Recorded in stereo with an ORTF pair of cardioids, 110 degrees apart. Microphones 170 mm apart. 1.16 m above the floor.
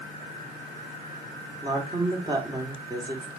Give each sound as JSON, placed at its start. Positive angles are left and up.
{"t": 1.6, "sound": "a woman speaking", "azimuth_deg": -25, "distance_m": 2.5}